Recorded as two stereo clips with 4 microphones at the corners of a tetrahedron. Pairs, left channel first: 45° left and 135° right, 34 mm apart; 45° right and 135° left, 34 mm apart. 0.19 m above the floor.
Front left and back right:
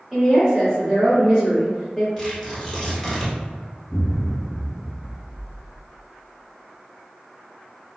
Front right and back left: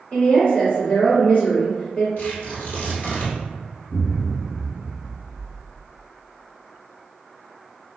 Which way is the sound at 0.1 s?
65° right.